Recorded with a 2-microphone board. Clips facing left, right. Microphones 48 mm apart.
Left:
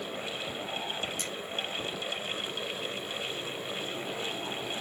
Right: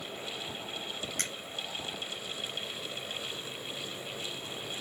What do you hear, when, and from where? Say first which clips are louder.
1.2 s a finger snap: even; 60° right (ahead or behind), 1.9 m